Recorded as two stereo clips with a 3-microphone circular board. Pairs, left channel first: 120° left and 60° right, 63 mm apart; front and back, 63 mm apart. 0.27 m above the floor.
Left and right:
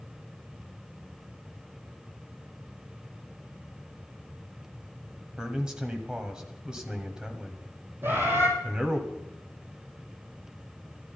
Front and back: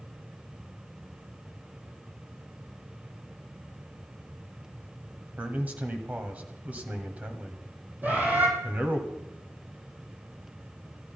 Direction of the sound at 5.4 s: 130° right.